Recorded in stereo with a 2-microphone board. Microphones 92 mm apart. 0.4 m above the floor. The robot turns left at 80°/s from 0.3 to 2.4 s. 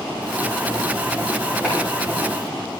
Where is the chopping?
15° right (ahead or behind), 8.5 m; by 1.8 s 25° right (ahead or behind), 8.5 m.